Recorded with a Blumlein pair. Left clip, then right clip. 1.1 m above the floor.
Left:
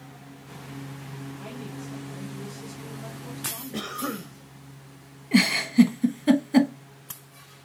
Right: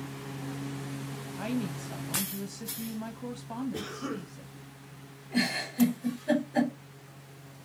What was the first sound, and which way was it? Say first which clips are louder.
A woman speaking: right 7 dB; 55° right.